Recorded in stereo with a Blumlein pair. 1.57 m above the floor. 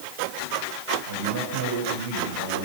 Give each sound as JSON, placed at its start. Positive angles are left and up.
{"t": 1.1, "sound": "a man speaking", "azimuth_deg": -65, "distance_m": 7.0}